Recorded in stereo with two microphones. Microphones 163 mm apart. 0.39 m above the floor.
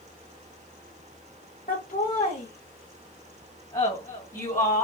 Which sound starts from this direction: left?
Laughter, at 1.7 s.